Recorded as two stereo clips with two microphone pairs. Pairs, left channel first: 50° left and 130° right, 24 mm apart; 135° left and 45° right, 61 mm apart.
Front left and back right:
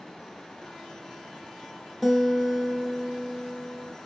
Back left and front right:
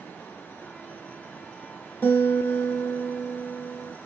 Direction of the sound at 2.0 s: 135° left.